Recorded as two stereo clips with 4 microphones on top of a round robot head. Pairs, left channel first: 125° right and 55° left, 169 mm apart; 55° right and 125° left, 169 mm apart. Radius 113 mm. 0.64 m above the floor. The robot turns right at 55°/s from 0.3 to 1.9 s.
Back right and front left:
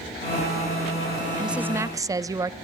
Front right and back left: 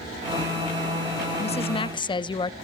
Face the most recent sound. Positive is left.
turn(degrees=-5)